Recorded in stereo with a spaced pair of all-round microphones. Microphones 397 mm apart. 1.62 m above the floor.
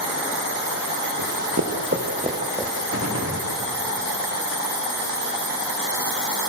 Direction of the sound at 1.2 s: 50° right (ahead or behind).